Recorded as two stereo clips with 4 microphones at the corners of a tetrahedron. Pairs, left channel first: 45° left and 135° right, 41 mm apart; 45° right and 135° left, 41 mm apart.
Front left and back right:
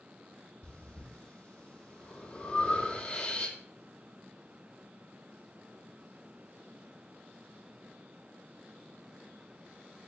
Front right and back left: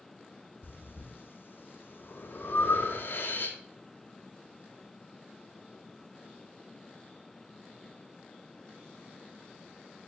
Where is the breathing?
15° right, 1.6 m.